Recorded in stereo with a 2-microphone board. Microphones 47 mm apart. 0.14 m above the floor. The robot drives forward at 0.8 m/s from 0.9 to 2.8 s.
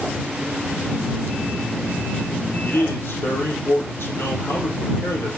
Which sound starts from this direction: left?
A man speaking, at 2.6 s.